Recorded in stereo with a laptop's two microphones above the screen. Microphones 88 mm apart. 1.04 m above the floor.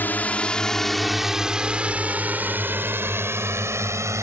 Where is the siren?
I don't hear a siren.